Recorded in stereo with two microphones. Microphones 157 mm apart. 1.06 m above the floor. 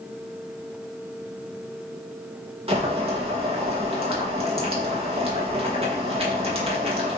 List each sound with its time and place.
2.7 s boiling: 35° right (ahead or behind), 1.2 m